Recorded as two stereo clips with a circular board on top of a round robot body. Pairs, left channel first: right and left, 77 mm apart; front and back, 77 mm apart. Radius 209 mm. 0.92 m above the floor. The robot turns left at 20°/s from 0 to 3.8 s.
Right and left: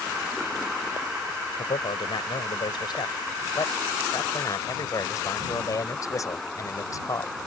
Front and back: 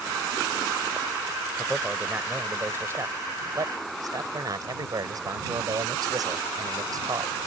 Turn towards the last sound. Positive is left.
turn(degrees=-140)